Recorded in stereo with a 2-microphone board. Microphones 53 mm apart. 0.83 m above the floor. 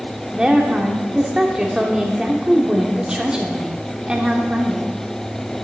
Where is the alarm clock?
I don't hear an alarm clock.